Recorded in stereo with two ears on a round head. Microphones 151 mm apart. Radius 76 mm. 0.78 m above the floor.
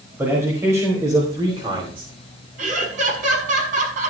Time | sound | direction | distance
0.2 | a man speaking | 15° right (ahead or behind) | 5 m
2.6 | laughter | 50° right (ahead or behind) | 6 m